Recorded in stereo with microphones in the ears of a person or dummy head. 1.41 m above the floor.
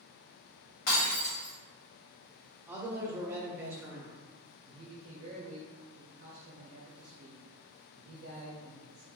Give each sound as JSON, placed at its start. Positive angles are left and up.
{"t": 0.9, "sound": "breaking glass", "side_deg": 70, "distance_m": 1.4}
{"t": 2.7, "sound": "a man speaking", "side_deg": -5, "distance_m": 0.6}
{"t": 4.7, "sound": "a man speaking", "side_deg": -40, "distance_m": 0.6}